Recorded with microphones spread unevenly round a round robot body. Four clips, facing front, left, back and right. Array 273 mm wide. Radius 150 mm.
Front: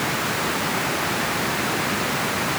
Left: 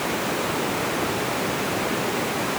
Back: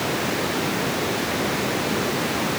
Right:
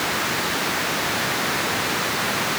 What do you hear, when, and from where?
Only background noise.